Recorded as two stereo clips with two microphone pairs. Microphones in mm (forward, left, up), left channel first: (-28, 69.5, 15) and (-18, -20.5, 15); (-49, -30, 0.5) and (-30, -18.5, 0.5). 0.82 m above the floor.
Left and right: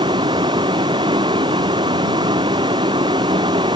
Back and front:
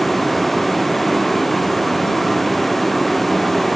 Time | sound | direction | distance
0.0 | a vehicle | 65° right | ?